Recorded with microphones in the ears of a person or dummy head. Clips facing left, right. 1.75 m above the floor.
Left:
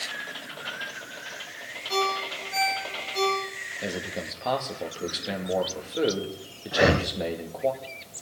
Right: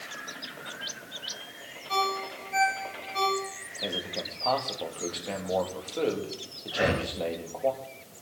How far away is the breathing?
About 1.1 m.